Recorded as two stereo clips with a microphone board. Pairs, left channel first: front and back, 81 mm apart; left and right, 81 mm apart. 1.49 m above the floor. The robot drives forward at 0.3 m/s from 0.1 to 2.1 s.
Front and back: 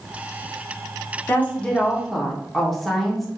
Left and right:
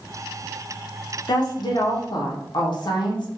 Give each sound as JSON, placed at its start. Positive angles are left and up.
{"t": 1.3, "sound": "a woman speaking", "azimuth_deg": 65, "distance_m": 0.7}